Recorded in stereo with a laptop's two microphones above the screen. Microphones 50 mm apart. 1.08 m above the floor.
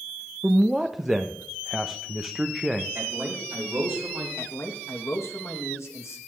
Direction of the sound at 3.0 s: 55° right (ahead or behind).